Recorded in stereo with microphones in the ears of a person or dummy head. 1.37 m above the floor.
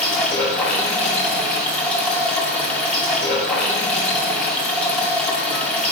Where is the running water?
5° left (ahead or behind), 1.9 m.